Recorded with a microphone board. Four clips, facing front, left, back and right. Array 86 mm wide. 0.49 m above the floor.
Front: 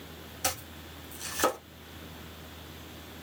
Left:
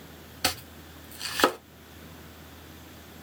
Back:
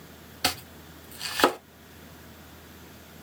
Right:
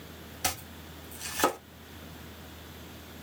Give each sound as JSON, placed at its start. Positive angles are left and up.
{"t": 0.4, "sound": "chopping", "azimuth_deg": 145, "distance_m": 1.5}